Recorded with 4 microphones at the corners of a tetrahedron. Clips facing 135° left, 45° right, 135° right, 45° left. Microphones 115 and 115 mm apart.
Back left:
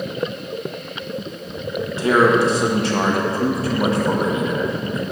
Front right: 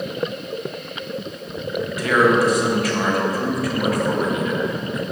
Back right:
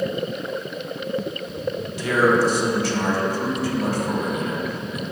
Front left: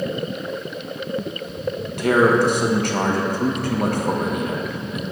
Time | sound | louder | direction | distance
1.9 | a man speaking | back left 2 dB, front left 3 dB | 75° left | 1.0 m